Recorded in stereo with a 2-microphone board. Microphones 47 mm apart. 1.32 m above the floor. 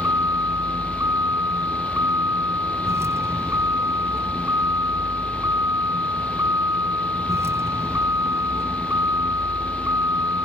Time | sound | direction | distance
0.0 | a vehicle | 65° right (ahead or behind) | ?